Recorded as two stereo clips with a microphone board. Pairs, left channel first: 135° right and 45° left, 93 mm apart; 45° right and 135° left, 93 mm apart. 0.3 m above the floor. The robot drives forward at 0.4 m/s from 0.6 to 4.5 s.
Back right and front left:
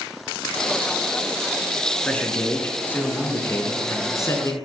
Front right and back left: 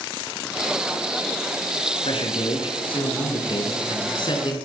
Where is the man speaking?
60° right, 3 m; by 4.6 s 80° right, 2.5 m.